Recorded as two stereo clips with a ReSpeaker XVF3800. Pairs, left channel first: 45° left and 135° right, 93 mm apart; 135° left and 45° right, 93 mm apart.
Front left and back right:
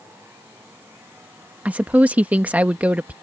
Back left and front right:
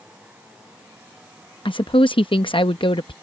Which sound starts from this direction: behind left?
A woman speaking, at 1.6 s.